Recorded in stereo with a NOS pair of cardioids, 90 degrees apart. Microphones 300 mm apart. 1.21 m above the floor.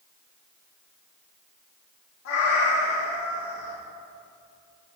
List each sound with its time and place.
2.2 s a cat meowing: 70° left, 1.5 m